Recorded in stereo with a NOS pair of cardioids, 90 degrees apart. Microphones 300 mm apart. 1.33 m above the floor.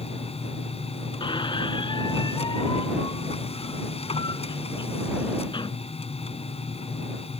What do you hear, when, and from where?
0.0 s a machine running: 20° left
1.2 s a squeak: 15° left